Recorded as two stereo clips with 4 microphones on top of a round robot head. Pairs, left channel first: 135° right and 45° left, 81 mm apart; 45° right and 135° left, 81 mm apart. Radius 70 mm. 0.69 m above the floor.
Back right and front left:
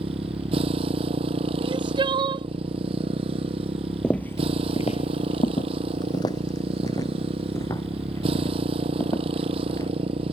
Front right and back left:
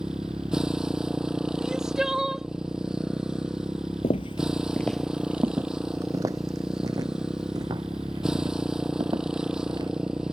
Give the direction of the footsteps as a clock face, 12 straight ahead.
2 o'clock.